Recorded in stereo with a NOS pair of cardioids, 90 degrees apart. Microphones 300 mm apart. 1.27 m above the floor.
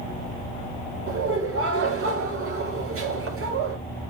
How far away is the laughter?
About 6 m.